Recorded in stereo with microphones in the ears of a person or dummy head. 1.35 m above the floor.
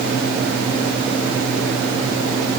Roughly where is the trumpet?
I don't hear a trumpet.